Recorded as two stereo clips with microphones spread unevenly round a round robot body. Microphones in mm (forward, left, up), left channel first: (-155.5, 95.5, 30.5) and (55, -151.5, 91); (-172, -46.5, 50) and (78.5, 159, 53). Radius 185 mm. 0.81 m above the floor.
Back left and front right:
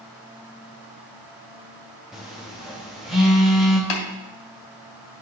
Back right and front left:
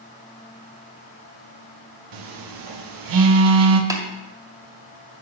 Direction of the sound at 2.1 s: 45° left.